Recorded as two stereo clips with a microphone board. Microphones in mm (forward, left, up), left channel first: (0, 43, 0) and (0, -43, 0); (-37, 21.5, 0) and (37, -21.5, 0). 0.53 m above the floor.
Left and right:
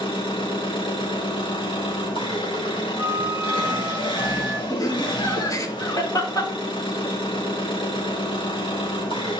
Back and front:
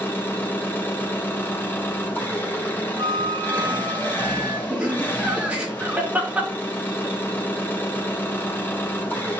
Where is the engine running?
85° left, 3 m.